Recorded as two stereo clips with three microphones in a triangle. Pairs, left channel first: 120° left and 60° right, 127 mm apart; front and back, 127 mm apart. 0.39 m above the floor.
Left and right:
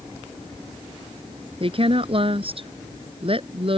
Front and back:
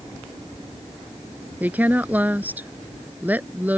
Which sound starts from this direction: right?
A woman speaking, at 1.6 s.